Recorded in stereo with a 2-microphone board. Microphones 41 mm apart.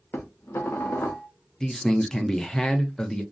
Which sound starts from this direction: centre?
A man speaking, at 1.6 s.